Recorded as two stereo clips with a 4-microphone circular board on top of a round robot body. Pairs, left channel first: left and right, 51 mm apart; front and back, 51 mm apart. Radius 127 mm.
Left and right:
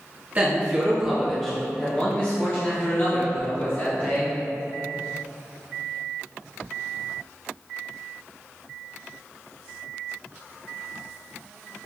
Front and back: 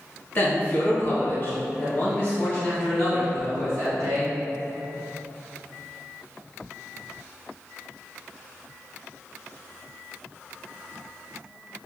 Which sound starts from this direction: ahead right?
A man speaking, at 0.3 s.